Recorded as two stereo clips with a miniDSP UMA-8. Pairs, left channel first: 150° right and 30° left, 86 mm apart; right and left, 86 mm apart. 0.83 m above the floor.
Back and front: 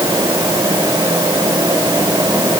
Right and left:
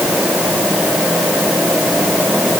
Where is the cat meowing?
No cat meowing in this recording.